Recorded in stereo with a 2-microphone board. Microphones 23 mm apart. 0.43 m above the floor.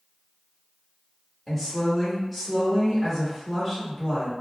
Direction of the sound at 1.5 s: 5° left (ahead or behind).